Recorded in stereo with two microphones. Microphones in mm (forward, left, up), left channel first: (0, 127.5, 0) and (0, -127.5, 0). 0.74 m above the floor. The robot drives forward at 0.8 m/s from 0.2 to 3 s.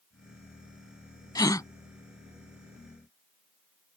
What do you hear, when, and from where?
1.4 s a gasp: 15° left (ahead or behind)